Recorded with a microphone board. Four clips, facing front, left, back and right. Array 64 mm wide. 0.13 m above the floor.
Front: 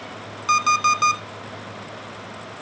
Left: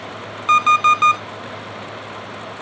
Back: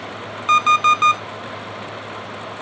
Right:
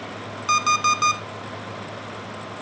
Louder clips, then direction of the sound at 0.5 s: Left 7 dB, back 4 dB; 130° left.